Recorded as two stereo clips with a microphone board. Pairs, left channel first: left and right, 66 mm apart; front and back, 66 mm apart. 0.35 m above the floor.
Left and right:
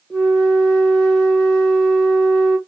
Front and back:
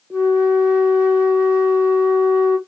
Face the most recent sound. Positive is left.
turn(degrees=155)